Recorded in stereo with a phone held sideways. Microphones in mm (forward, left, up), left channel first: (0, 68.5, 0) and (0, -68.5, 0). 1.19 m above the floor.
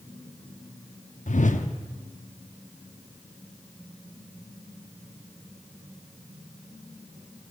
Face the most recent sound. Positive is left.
turn(degrees=65)  # may be behind; listen again after turning